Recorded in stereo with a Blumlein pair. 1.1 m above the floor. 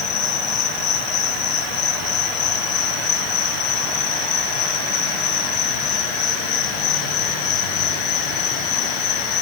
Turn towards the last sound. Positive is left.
turn(degrees=30)